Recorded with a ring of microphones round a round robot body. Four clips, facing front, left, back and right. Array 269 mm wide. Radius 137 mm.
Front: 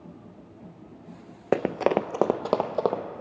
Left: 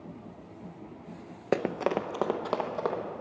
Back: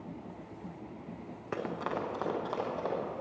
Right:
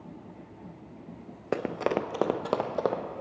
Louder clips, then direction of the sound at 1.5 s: Even, front 12 dB; 15° left.